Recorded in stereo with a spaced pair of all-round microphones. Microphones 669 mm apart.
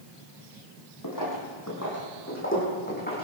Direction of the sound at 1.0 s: 30° left (ahead or behind).